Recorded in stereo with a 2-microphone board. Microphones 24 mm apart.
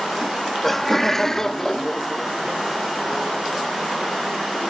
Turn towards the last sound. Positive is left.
turn(degrees=25)  # may be behind; listen again after turning